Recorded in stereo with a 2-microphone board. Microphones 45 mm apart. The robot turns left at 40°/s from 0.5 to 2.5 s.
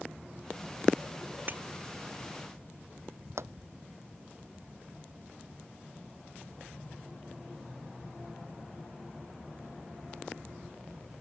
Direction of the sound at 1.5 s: 45° right (ahead or behind).